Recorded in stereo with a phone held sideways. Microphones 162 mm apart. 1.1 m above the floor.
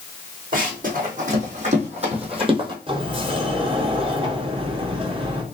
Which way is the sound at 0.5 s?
60° right (ahead or behind).